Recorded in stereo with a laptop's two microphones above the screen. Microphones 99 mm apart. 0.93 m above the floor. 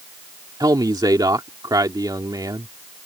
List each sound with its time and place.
0.6 s a man speaking: 45° right (ahead or behind)